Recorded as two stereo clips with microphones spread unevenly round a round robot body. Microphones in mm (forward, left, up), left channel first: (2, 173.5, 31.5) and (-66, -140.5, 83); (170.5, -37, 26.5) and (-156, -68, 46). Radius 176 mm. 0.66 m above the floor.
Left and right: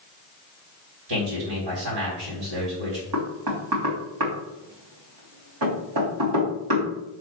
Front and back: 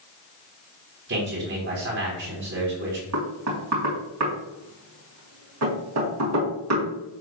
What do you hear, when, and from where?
1.1 s a man speaking: 125° right, 4 m
3.1 s knocking: 130° right, 3 m